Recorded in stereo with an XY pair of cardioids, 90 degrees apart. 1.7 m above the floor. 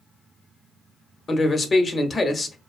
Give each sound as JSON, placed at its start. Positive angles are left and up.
{"t": 1.3, "sound": "a man speaking", "azimuth_deg": 45, "distance_m": 0.7}